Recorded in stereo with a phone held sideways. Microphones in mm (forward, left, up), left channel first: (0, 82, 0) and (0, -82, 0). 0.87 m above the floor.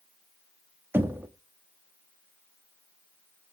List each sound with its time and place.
0.9 s knocking: 10° right (ahead or behind), 1.1 m